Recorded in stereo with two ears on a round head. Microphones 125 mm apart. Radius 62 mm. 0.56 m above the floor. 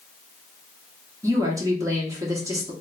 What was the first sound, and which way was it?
A woman speaking, 20° right (ahead or behind).